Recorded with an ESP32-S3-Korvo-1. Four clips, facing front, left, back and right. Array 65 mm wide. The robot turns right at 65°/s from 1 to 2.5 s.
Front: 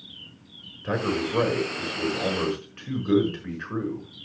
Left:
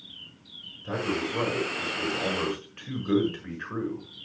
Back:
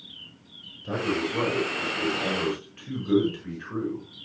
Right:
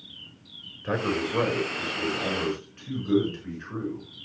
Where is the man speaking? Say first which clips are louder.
Right 2 dB, front 1 dB; 55° right, 6 m; by 4.1 s 40° left, 6 m.